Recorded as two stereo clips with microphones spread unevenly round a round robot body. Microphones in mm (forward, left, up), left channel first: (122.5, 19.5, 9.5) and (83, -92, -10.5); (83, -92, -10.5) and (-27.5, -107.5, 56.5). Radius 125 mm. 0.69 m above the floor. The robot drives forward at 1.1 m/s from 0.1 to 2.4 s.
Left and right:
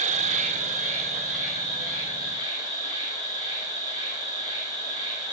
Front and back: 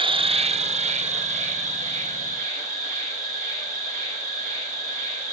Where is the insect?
120° right, 1.0 m; by 5.3 s 165° right, 3 m.